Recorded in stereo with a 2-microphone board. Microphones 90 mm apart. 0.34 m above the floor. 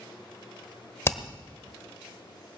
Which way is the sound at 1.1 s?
30° left (ahead or behind).